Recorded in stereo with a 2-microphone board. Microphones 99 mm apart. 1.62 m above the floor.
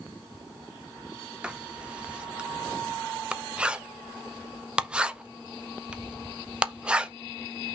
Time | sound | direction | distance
1.4 | writing | 10° right (ahead or behind) | 0.6 m